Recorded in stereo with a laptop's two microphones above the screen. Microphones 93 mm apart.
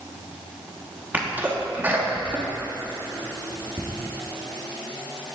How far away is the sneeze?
About 1.3 m.